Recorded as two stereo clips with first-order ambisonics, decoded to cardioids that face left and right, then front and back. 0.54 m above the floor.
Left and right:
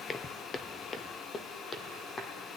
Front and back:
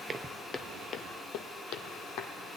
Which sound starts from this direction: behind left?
Footsteps, at 0.1 s.